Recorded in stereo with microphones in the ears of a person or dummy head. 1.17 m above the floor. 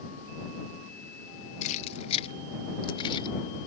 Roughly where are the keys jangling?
Left.